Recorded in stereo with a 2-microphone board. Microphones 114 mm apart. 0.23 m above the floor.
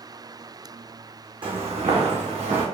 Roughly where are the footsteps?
Right.